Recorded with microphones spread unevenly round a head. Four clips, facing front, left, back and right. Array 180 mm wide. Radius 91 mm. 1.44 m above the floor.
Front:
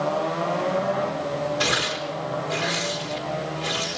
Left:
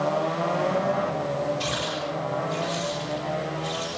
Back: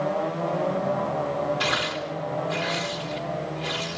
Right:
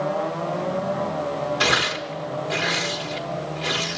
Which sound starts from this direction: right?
Tearing paper, at 1.6 s.